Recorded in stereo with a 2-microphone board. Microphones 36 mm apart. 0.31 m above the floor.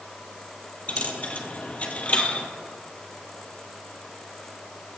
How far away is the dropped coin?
About 1.1 m.